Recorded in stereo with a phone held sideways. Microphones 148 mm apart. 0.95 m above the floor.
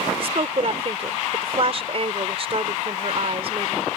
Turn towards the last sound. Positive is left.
turn(degrees=-45)  # may be behind; listen again after turning